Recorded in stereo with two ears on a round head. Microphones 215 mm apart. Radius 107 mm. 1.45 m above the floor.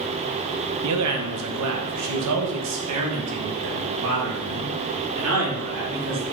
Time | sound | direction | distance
0.8 | a man speaking | 75° right (ahead or behind) | 1.4 m